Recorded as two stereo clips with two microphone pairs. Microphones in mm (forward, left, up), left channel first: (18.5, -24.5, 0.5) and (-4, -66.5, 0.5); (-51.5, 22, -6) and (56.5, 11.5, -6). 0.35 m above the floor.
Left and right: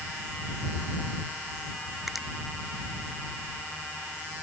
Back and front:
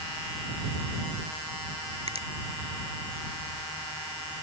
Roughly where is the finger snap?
Ahead right.